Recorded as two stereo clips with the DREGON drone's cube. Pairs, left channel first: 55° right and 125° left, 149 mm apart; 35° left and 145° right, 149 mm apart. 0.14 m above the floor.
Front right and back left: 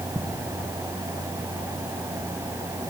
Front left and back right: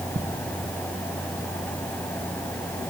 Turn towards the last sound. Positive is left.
turn(degrees=-150)